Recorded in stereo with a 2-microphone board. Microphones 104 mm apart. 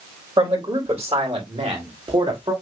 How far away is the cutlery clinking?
I don't hear cutlery clinking.